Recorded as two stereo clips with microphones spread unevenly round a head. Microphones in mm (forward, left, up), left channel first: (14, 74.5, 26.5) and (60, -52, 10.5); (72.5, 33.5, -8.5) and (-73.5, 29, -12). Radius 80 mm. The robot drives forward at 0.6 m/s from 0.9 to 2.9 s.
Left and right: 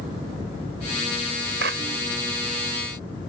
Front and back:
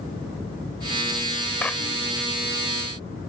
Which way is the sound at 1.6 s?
80° right.